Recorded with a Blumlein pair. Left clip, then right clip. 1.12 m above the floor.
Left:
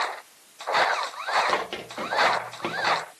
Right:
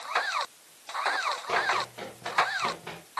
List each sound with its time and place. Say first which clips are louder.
1.5 s running footsteps: right 1 dB; 25° left, 8.5 m; by 3.0 s 30° left, 7.5 m